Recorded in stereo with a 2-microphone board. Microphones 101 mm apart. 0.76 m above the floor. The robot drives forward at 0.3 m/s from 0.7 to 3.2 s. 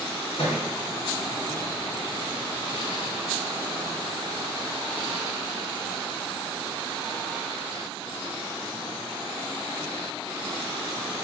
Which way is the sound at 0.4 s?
70° left (ahead or behind).